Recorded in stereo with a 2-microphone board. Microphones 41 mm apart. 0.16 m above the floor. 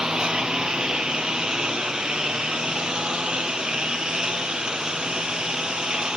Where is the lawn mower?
20° right (ahead or behind).